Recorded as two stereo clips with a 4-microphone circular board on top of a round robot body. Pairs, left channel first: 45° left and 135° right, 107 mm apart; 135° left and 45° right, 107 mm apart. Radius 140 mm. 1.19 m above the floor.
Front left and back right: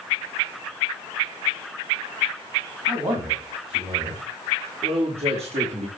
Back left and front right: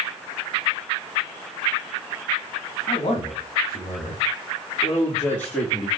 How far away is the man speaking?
About 2.5 m.